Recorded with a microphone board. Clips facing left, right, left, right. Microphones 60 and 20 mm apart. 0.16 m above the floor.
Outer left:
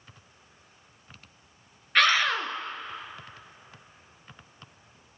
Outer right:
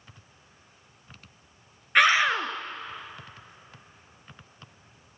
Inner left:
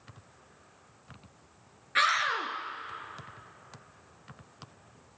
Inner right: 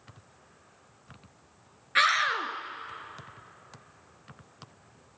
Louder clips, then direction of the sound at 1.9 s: Outer right 2 dB, inner right 2 dB; 15° right (ahead or behind).